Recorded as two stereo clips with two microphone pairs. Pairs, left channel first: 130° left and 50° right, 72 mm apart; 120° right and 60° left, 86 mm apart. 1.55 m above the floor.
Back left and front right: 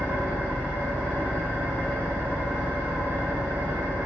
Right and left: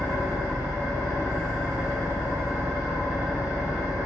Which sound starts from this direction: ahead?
An engine running, at 0.0 s.